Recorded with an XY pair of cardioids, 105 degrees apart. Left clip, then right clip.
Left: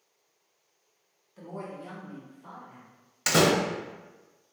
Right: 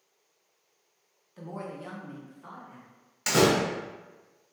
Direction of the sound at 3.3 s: 30° left.